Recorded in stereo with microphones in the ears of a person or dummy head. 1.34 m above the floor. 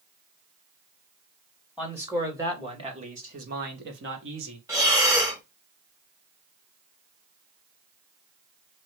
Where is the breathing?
15° right (ahead or behind), 0.7 m.